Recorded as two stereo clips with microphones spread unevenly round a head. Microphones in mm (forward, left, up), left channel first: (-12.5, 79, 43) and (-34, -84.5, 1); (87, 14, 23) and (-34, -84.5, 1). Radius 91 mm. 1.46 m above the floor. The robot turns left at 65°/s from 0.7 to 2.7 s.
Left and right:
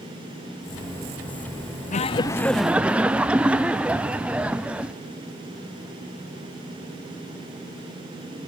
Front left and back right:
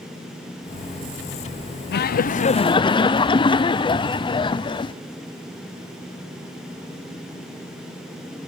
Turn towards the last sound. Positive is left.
turn(degrees=-25)